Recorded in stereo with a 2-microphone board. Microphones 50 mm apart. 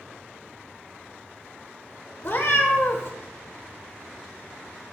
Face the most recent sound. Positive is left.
turn(degrees=55)  # may be behind; listen again after turning